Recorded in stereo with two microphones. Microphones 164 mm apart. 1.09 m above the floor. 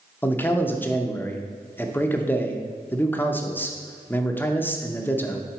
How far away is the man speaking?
About 0.6 m.